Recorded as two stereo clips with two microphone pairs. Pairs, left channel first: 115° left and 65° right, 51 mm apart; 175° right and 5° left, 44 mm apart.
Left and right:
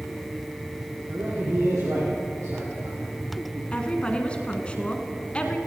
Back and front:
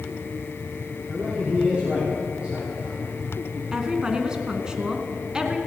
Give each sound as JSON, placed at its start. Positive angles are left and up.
{"t": 1.1, "sound": "a man speaking", "azimuth_deg": -55, "distance_m": 6.5}
{"t": 3.7, "sound": "a woman speaking", "azimuth_deg": 70, "distance_m": 1.6}